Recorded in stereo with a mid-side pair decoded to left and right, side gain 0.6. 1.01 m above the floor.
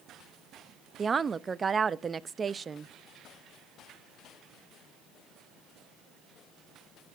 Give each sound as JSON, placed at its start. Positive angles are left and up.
{"t": 1.0, "sound": "a woman speaking", "azimuth_deg": -25, "distance_m": 0.8}